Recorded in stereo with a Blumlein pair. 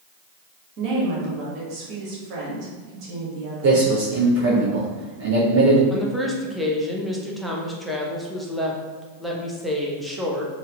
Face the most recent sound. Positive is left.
turn(degrees=0)